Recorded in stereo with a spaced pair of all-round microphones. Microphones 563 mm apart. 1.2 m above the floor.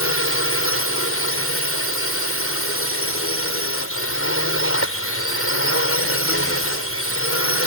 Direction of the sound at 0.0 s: 25° left (ahead or behind).